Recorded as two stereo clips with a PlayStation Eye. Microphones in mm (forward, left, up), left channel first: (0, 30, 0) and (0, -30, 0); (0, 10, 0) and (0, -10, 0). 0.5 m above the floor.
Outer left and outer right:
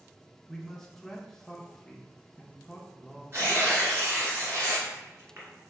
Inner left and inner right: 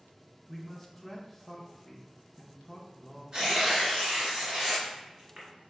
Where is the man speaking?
5° left (ahead or behind), 0.7 m.